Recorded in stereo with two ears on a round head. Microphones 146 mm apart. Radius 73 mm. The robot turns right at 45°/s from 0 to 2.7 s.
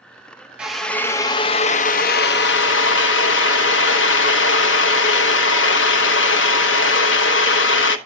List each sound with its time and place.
0.6 s a drill: 5° right, 0.9 m; by 8.0 s 90° left, 0.9 m